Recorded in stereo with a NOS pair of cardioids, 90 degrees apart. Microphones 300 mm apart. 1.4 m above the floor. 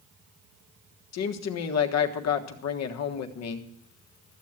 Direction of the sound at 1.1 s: 60° left.